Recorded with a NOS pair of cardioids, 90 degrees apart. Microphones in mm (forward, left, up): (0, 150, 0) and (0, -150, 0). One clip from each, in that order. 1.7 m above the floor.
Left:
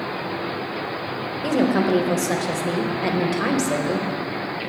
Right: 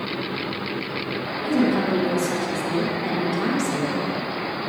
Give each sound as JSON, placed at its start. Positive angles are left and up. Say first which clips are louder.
{"t": 1.4, "sound": "a woman speaking", "louder": "left 2 dB", "azimuth_deg": 65, "distance_m": 1.1}